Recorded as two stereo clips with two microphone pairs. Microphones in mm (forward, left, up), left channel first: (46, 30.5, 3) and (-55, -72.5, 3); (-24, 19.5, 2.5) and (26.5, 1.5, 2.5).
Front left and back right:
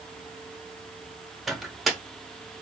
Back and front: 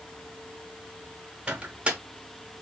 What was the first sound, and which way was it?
A microwave, 50° right.